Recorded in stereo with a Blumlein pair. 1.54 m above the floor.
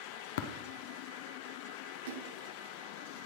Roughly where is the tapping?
Ahead left.